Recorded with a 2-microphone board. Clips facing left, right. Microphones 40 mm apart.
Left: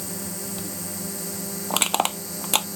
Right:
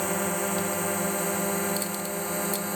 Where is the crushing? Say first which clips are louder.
Left 7 dB; 80° left.